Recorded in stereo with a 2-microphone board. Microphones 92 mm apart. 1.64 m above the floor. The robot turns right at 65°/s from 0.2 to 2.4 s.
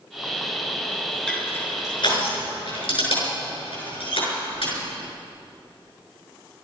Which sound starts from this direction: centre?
Crushing, at 1.3 s.